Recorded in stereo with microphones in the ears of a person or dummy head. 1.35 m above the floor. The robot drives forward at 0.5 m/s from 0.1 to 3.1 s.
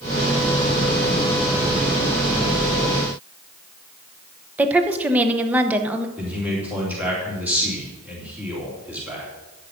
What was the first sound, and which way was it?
A woman speaking, 10° right (ahead or behind).